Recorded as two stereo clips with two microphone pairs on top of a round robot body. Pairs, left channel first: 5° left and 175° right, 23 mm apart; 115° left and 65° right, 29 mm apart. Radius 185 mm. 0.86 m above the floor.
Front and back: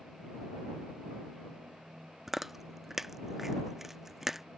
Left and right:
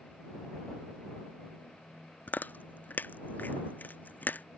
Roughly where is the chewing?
Left.